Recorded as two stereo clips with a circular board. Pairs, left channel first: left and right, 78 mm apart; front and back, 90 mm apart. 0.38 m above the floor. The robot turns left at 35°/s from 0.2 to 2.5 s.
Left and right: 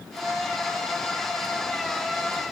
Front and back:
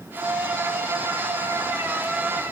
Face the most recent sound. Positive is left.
No sound to turn to.